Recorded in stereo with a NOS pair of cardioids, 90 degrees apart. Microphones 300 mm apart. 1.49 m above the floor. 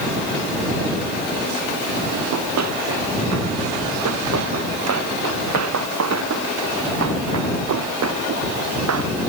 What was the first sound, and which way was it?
Running footsteps, 60° right.